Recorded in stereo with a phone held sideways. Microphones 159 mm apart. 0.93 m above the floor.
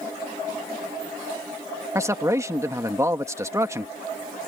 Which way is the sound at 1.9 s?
20° right (ahead or behind).